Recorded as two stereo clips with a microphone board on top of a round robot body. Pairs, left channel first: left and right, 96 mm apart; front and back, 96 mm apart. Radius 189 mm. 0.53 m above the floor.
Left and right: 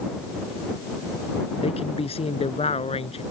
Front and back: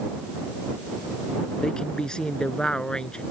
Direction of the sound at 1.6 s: 80° left.